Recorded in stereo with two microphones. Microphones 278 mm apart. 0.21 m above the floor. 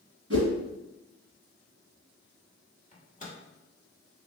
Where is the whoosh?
50° right (ahead or behind), 1.3 m.